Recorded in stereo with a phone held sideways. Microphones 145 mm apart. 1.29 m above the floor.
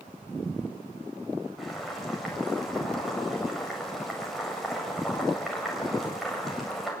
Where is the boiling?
Centre (ahead or behind), 8 m.